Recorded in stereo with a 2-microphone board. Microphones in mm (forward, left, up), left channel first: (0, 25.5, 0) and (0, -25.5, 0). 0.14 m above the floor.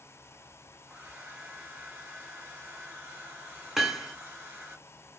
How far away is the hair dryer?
About 1.5 m.